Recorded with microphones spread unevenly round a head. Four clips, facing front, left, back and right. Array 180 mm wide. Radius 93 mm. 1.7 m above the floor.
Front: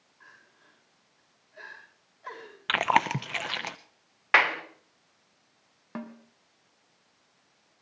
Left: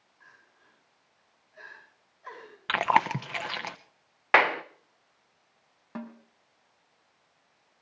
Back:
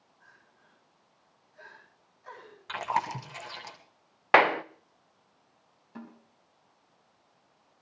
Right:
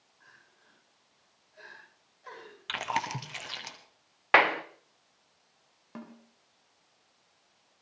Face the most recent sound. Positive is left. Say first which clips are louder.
# left 5 dB, front 7 dB
turn(degrees=10)